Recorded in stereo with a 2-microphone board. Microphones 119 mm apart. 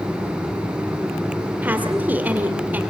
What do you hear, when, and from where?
1.6 s a woman speaking: 15° right (ahead or behind), 2.5 m